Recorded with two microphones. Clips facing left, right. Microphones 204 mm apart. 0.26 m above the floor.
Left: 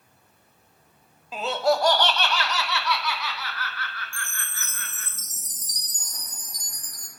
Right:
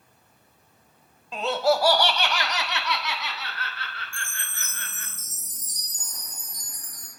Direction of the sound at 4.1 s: 80° left.